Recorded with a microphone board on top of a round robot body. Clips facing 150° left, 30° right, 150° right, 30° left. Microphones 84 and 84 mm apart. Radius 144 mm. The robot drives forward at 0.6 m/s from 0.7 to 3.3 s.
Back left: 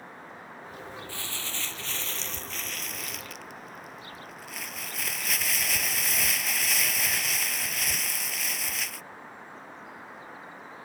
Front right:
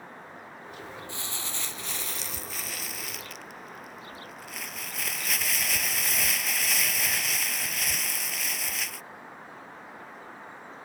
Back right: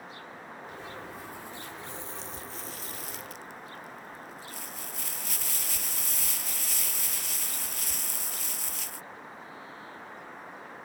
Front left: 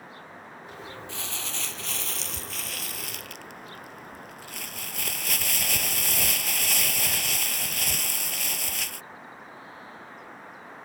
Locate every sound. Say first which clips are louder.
1.1 s crumpling: even, front left 3 dB; 40° left; by 9.1 s 60° left